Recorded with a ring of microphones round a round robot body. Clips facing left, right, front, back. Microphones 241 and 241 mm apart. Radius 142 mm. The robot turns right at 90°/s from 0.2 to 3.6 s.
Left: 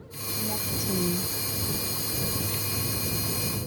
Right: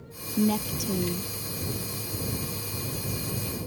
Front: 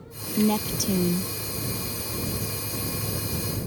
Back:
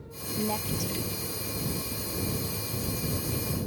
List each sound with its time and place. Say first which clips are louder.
0.4 s a woman speaking: right 9 dB, front 8 dB; 55° right; by 1.3 s 30° left